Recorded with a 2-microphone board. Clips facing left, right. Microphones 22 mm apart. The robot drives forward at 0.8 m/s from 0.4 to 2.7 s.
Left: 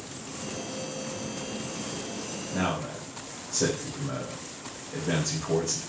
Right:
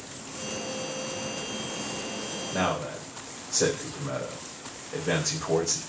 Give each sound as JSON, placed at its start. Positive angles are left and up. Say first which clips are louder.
{"t": 2.5, "sound": "a man speaking", "louder": "right 2 dB", "side_deg": -30, "distance_m": 4.0}